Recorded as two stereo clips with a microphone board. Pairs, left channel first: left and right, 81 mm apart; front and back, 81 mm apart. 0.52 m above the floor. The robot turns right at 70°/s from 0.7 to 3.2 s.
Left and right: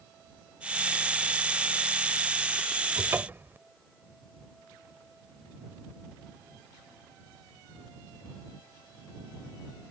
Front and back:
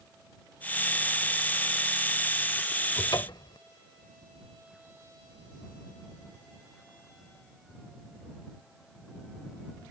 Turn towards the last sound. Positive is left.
turn(degrees=-25)